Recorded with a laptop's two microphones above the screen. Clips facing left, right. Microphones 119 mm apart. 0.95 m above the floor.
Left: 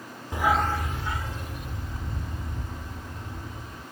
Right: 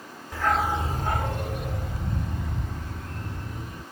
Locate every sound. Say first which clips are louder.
0.3 s a dog barking: even; 20° left (ahead or behind); by 3.8 s 75° right (ahead or behind)